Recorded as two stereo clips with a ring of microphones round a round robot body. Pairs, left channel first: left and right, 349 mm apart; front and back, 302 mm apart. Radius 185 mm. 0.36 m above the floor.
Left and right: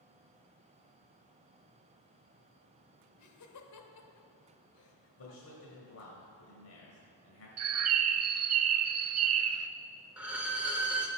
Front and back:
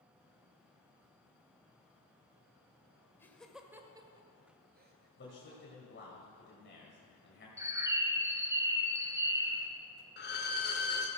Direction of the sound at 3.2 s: 80° left.